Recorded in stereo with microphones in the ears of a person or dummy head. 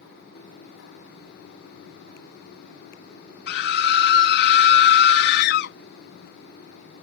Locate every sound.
3.5 s a scream: 65° left (ahead or behind)